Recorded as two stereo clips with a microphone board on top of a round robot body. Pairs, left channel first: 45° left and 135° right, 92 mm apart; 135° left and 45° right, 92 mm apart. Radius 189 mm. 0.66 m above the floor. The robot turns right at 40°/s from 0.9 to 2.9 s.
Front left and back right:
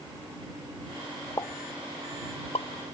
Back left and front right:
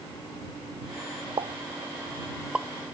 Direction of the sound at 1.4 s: 10° right.